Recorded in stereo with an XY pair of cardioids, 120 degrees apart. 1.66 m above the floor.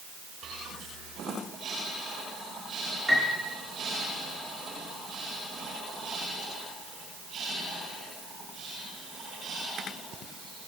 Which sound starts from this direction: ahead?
A piano, at 3.1 s.